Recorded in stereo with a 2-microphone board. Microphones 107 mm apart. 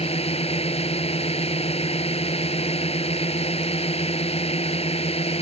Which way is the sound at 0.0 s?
70° left (ahead or behind).